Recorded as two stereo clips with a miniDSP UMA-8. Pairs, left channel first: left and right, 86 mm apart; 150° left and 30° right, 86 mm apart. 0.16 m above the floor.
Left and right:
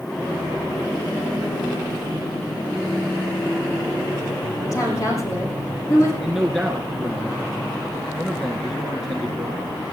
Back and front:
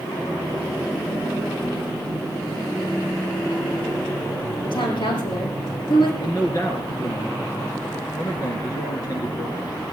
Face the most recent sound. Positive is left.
turn(degrees=180)